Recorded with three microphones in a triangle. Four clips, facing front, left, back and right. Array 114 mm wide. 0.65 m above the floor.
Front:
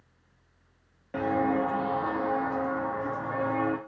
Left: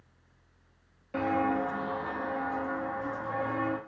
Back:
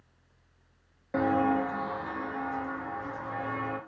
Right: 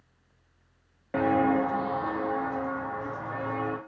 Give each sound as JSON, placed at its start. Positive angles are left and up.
{"t": 1.1, "sound": "footsteps", "azimuth_deg": -110, "distance_m": 0.8}